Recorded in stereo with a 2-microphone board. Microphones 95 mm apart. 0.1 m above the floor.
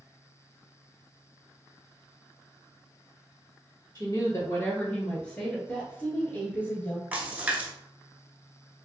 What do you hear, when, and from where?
4.0 s a woman speaking: 45° left (ahead or behind), 1.7 m; by 5.6 s centre (ahead or behind), 1.2 m
5.7 s a woman speaking: 20° left (ahead or behind), 1.4 m
7.1 s a splash: 15° right (ahead or behind), 0.8 m